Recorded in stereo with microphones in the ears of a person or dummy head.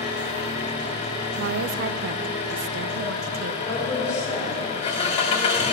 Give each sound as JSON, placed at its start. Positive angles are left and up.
{"t": 0.0, "sound": "an engine running", "side_deg": 40, "distance_m": 2.0}
{"t": 1.4, "sound": "a woman speaking", "side_deg": -65, "distance_m": 0.7}
{"t": 3.6, "sound": "a woman speaking", "side_deg": 20, "distance_m": 4.0}